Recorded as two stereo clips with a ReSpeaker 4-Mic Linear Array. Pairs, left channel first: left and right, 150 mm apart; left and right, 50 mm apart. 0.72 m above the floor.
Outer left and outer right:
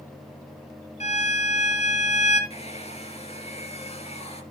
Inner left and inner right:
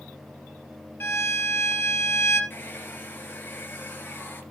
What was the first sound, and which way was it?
A violin, 45° left (ahead or behind).